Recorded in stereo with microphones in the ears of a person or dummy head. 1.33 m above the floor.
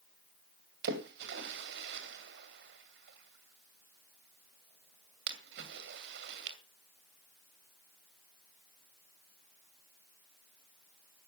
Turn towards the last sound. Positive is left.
turn(degrees=-60)  # may be behind; listen again after turning